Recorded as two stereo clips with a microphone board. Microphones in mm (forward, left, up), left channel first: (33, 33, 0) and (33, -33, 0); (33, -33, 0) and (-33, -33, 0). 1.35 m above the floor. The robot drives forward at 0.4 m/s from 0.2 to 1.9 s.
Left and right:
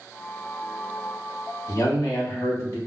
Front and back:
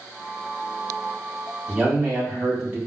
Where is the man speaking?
120° left, 1.9 m; by 2.8 s 125° left, 1.9 m.